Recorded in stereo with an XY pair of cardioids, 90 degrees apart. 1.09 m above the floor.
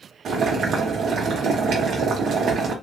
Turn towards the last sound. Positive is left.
turn(degrees=-65)